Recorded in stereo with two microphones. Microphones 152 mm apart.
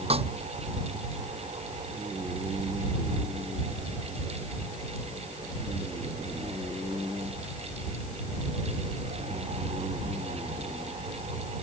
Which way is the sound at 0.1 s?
40° right (ahead or behind).